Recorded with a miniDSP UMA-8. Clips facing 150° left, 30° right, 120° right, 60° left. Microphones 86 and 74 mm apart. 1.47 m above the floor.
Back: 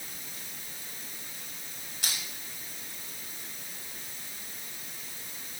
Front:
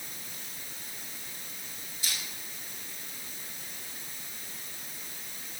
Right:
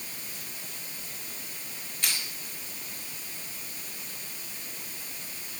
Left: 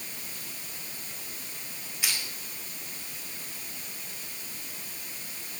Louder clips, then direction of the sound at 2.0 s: Back 1 dB, even; 145° left.